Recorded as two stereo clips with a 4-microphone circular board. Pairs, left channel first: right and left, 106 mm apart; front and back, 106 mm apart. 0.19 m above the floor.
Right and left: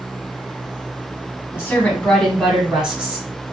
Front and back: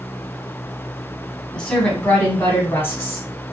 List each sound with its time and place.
1.5 s a woman speaking: 75° right, 1.4 m; by 3.4 s 40° left, 1.5 m